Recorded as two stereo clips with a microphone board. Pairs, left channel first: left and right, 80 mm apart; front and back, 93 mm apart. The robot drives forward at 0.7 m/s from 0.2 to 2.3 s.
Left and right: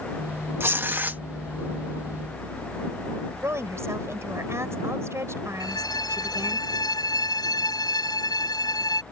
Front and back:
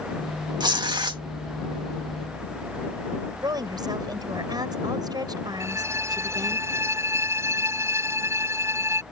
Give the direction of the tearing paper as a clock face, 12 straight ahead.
5 o'clock.